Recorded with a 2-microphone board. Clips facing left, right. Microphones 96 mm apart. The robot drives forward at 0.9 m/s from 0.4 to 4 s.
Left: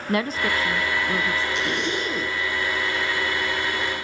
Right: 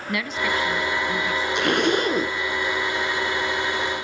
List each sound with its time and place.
0.1 s a woman speaking: 35° left (ahead or behind), 1.2 m; by 1.4 s 30° left (ahead or behind), 1.5 m
1.6 s a zipper: 60° right (ahead or behind), 1.2 m; by 2.4 s 45° right (ahead or behind), 1.4 m